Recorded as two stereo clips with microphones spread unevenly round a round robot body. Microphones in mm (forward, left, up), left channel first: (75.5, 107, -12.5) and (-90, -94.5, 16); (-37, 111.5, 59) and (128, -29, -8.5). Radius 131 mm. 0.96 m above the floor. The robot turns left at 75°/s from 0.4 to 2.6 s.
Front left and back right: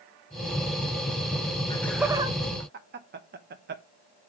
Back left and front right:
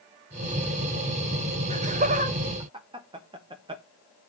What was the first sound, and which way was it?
Laughter, 15° right.